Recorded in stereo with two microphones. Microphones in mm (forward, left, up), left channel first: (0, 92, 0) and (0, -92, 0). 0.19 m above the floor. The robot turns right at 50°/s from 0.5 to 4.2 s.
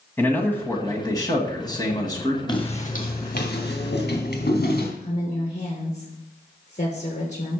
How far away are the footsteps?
About 2 m.